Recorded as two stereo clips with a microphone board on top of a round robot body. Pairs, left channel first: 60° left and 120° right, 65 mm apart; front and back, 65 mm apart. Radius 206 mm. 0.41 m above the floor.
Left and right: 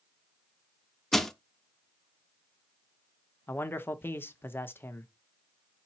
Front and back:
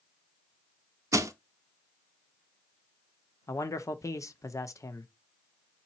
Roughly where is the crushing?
Behind left.